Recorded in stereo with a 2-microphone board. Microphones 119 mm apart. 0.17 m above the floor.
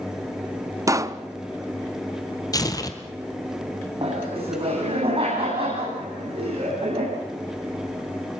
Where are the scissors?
No scissors in this recording.